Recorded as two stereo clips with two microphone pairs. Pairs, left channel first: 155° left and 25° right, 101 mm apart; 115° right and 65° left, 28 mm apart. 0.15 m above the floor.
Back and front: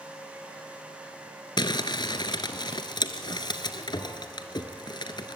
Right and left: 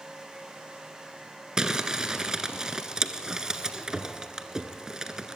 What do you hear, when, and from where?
1.6 s crumpling: 130° left, 1.2 m